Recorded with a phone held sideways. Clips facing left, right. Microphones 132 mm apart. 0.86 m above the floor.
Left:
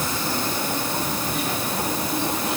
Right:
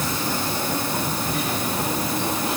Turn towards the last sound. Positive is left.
No sound to turn to.